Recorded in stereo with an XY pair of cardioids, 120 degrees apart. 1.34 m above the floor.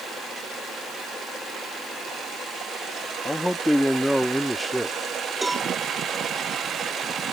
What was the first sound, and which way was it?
A man speaking, 5° left.